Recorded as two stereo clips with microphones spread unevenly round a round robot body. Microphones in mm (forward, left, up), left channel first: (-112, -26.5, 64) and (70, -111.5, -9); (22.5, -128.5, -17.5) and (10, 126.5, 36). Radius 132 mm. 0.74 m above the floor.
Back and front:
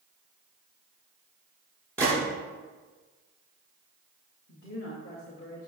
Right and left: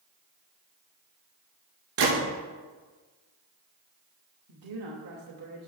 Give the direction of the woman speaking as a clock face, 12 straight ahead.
9 o'clock.